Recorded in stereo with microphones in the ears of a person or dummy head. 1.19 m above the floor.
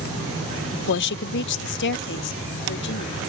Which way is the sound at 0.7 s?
60° left (ahead or behind).